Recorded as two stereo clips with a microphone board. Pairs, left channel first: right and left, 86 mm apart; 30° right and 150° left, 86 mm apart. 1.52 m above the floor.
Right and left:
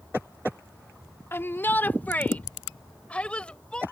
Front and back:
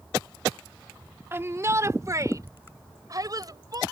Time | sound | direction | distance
1.3 | a shout | 150° right | ?